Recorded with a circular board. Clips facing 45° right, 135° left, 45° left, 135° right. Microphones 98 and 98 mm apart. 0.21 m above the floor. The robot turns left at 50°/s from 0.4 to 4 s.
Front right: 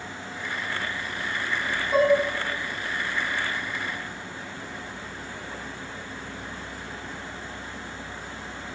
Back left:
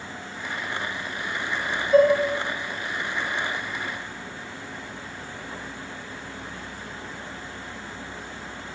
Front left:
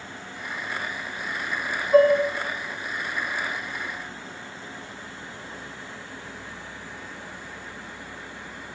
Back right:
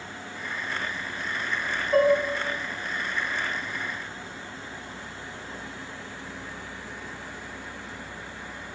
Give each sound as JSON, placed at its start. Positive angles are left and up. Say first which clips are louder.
{"t": 1.9, "sound": "dishes clattering", "louder": "back left 3 dB, front left 4 dB", "azimuth_deg": -35, "distance_m": 1.0}